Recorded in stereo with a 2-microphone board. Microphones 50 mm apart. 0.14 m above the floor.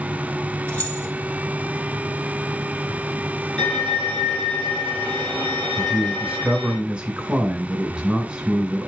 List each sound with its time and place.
0.7 s keys jangling: 35° left (ahead or behind), 3.5 m
3.6 s a violin: 10° left (ahead or behind), 4 m
5.8 s a man speaking: 20° right (ahead or behind), 1.7 m